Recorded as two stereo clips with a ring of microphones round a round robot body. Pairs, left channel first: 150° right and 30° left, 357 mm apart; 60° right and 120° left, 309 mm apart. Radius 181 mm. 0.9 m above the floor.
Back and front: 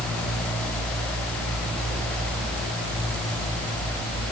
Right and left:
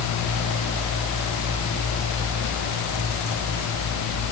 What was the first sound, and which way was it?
Only background noise.